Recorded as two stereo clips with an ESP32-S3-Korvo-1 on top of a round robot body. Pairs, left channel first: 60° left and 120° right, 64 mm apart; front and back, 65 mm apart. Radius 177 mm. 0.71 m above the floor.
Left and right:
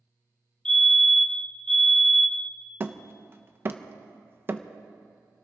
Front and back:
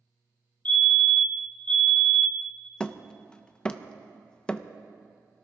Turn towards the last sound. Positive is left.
turn(degrees=-75)